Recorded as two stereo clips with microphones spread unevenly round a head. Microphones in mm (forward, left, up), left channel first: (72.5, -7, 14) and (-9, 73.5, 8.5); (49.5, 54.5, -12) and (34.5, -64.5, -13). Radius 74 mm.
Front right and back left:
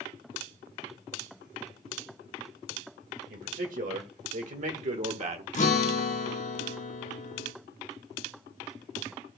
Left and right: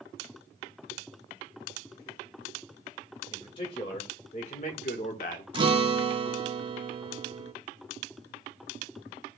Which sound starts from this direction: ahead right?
A guitar, at 5.5 s.